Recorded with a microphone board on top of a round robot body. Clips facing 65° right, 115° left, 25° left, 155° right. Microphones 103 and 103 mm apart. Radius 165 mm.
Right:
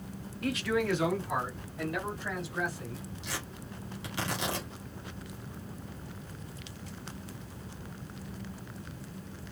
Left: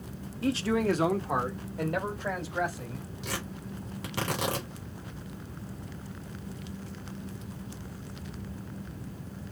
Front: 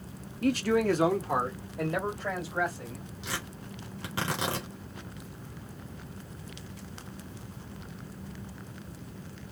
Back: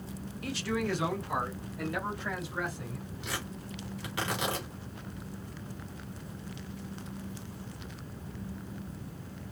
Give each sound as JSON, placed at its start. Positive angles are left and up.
{"t": 0.4, "sound": "a man speaking", "azimuth_deg": 50, "distance_m": 1.0}
{"t": 3.2, "sound": "tearing paper", "azimuth_deg": 80, "distance_m": 4.5}